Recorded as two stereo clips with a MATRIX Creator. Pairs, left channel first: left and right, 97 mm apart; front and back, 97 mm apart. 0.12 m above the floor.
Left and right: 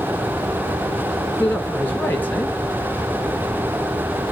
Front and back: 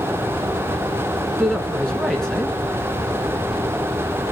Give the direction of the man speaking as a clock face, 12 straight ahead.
10 o'clock.